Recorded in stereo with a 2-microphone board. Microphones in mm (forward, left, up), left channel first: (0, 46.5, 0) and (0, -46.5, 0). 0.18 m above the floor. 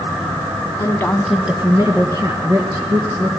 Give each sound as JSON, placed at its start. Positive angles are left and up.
{"t": 0.8, "sound": "a woman speaking", "side_deg": 40, "distance_m": 1.3}